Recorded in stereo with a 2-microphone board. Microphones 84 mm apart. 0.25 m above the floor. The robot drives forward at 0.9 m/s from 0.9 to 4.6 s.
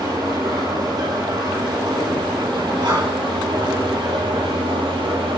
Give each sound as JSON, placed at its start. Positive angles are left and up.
{"t": 0.0, "sound": "an engine running", "side_deg": -55, "distance_m": 6.5}
{"t": 2.8, "sound": "breathing", "side_deg": -60, "distance_m": 5.5}